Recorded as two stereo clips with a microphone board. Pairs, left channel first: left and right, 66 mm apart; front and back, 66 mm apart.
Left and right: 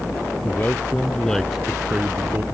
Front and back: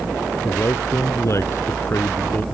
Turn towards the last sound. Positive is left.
turn(degrees=-45)